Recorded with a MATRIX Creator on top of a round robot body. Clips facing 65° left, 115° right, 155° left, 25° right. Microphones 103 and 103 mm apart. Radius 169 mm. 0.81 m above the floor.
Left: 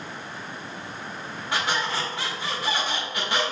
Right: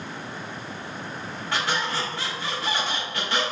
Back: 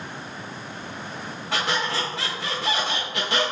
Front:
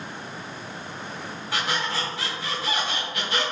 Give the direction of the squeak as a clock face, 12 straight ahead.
7 o'clock.